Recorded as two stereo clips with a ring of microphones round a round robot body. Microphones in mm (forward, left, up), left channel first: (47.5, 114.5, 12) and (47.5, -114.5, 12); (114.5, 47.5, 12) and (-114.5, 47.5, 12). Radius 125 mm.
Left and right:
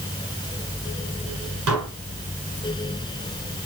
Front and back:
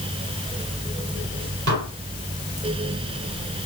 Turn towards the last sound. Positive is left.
turn(degrees=-130)